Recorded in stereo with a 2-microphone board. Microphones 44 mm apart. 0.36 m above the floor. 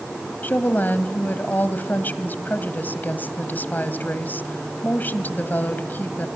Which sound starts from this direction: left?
A woman speaking, at 0.4 s.